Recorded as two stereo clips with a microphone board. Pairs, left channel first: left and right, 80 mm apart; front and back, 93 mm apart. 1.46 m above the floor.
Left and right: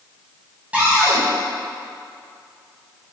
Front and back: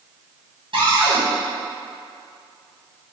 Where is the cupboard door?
165° right, 1.1 m.